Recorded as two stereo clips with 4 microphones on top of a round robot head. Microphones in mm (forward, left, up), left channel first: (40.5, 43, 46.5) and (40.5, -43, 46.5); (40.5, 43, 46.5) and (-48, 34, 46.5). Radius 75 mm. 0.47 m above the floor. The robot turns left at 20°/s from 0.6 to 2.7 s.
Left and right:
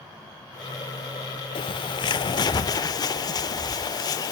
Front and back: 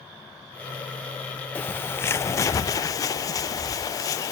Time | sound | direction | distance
1.6 | a bird | 75° left | 0.5 m